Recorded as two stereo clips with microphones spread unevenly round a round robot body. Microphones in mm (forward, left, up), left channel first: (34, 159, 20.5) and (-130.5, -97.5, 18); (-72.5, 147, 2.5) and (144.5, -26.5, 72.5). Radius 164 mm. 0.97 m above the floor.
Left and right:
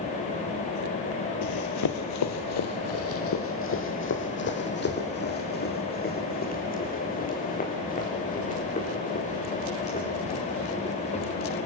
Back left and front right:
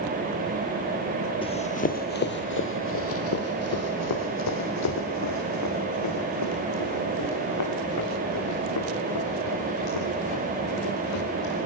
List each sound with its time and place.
1.4 s running footsteps: 65° left, 1.7 m; by 11.6 s 125° left, 9 m